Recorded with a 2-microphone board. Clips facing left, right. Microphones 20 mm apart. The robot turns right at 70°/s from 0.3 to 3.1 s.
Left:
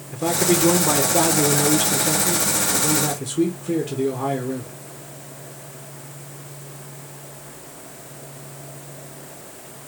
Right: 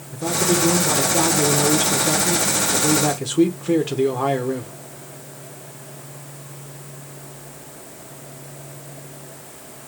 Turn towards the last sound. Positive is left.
turn(degrees=-30)  # may be behind; listen again after turning